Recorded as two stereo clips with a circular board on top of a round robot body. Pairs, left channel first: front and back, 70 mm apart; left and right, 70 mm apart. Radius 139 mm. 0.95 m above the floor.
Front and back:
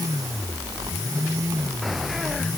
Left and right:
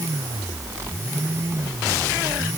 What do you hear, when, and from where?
Only background noise.